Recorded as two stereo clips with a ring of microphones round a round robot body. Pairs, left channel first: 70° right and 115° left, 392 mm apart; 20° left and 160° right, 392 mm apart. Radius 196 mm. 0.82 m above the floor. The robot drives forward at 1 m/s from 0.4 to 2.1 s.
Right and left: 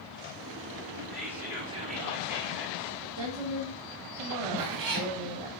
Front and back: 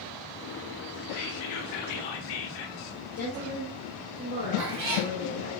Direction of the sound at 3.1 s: 95° left.